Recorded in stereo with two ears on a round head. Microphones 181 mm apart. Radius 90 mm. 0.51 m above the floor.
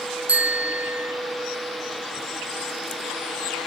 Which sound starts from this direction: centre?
A bicycle bell, at 0.3 s.